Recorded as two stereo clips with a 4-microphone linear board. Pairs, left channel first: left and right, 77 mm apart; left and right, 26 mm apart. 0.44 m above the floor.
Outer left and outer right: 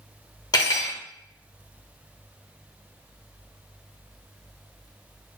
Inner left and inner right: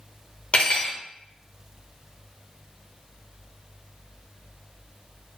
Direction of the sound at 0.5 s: 55° left (ahead or behind).